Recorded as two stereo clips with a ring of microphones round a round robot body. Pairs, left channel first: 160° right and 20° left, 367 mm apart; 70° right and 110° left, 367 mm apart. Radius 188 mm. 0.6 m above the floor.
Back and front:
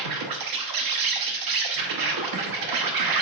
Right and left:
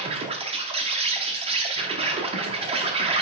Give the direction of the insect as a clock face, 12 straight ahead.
11 o'clock.